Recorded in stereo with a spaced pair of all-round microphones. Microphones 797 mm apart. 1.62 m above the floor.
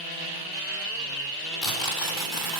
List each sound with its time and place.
1.6 s tearing paper: 80° left, 4.5 m